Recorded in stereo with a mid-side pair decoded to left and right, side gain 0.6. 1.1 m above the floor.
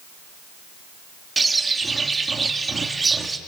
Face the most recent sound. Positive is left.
turn(degrees=-20)